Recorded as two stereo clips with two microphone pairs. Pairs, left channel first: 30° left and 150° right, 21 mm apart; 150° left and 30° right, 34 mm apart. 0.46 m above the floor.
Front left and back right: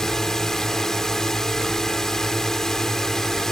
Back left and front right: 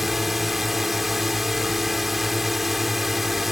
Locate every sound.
0.0 s a drone: 50° left